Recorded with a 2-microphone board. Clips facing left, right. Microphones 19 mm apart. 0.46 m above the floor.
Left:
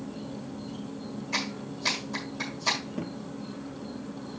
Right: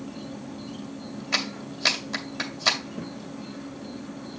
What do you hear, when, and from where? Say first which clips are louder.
0.0 s an insect: right 1 dB; 40° right (ahead or behind), 1.9 m
1.3 s a clap: right 5 dB; 55° right (ahead or behind), 1.9 m
3.0 s a thud: left 1 dB; 20° left (ahead or behind), 1.0 m